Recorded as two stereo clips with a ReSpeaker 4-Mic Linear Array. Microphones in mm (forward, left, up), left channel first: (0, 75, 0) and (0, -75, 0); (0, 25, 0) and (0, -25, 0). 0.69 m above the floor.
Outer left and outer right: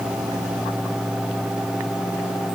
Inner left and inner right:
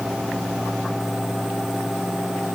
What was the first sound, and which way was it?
Only background noise.